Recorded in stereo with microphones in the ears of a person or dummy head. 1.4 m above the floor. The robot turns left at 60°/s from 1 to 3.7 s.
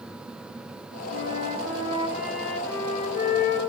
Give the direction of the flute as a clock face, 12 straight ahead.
3 o'clock.